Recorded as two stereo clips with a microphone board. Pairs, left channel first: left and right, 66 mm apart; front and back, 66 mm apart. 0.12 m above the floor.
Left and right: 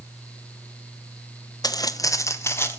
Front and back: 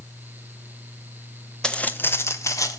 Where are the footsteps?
80° left, 1.2 m; by 2.8 s 30° left, 2.0 m.